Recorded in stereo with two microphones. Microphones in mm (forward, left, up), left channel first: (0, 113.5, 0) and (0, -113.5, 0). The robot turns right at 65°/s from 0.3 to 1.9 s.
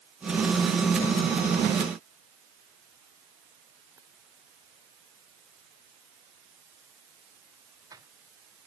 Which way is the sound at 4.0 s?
15° right (ahead or behind).